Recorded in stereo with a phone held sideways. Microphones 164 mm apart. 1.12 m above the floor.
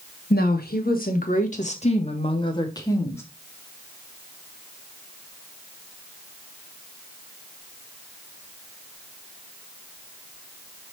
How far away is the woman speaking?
About 1.8 m.